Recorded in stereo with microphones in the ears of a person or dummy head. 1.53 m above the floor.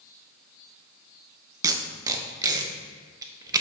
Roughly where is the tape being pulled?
Right.